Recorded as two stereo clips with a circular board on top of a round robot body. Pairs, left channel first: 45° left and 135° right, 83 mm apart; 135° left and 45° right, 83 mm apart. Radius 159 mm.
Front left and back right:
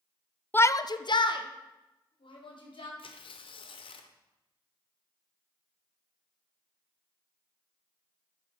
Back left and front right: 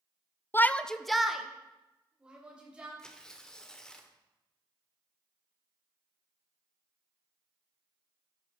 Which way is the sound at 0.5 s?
95° left.